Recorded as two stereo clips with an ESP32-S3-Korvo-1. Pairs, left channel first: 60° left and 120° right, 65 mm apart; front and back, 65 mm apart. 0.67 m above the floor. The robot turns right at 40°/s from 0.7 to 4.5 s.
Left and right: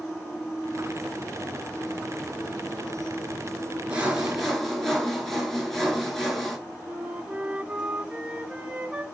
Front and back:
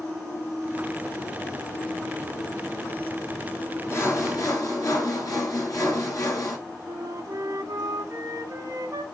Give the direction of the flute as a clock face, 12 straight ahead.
6 o'clock.